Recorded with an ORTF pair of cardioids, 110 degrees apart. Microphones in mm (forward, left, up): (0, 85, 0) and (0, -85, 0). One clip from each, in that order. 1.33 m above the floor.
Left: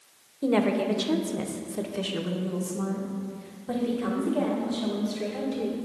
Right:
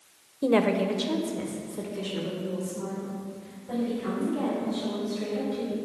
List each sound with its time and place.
0.4 s a woman speaking: 15° right, 0.6 m; by 5.9 s 55° left, 3 m